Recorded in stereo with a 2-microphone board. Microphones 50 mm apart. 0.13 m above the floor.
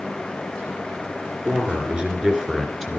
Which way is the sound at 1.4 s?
30° right (ahead or behind).